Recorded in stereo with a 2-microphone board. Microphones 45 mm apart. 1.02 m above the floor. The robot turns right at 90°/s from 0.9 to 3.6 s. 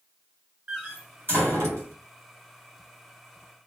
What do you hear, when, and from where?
0.7 s a door slam: 20° right (ahead or behind), 1.6 m; by 1.9 s 65° right (ahead or behind), 1.6 m